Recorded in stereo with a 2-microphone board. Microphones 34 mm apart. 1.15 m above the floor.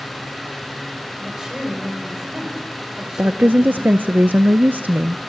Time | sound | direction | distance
1.2 | a woman speaking | 20° right (ahead or behind) | 6 m
3.2 | a woman speaking | 65° right (ahead or behind) | 0.5 m